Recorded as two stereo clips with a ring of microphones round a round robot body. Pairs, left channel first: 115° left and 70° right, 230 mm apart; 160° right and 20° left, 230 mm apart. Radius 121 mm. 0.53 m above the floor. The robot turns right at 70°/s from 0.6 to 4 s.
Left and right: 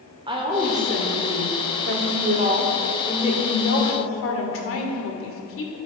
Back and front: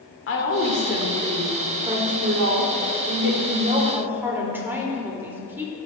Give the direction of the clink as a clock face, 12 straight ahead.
No clink in this recording.